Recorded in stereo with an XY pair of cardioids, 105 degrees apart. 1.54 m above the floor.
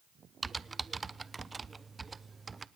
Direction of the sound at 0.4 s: 25° right.